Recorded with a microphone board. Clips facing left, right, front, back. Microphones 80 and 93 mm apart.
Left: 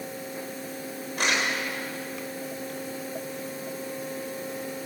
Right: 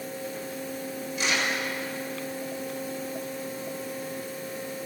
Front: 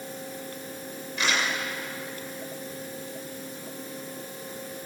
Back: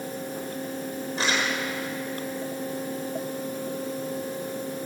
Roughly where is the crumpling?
Behind left.